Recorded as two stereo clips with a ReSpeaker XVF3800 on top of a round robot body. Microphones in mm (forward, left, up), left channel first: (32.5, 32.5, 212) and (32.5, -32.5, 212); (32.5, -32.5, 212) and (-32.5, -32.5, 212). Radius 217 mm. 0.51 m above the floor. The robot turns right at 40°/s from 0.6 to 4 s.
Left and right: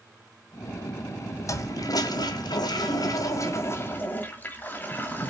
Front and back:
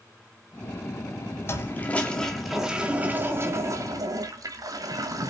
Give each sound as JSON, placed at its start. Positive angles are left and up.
{"t": 1.5, "sound": "a toilet flushing", "azimuth_deg": 50, "distance_m": 1.5}